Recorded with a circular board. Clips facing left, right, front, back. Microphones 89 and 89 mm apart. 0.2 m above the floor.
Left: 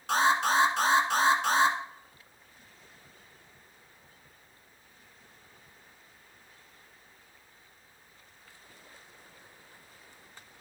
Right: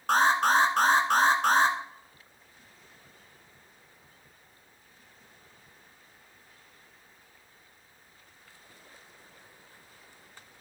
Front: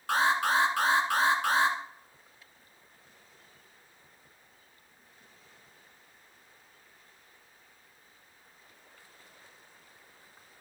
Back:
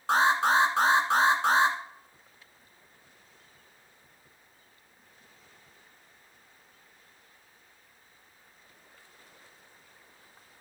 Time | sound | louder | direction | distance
0.1 | an alarm | right 2 dB, back 3 dB | 120° right | 1.8 m